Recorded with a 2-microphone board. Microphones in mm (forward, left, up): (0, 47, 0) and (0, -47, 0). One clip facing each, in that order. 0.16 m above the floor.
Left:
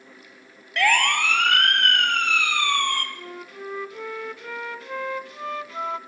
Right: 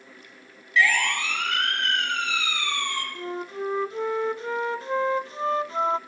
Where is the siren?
60° left (ahead or behind), 2 m; by 3.0 s 55° left (ahead or behind), 3.5 m.